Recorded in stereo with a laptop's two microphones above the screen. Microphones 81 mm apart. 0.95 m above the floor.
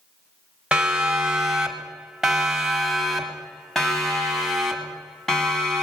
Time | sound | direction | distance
0.7 | a siren | 10° right (ahead or behind) | 5.5 m